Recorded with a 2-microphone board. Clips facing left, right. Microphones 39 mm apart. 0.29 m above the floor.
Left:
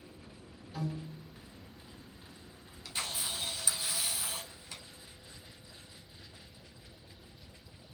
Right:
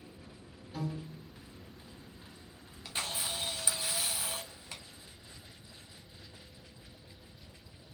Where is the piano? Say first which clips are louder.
Even; 15° right (ahead or behind), 3 m.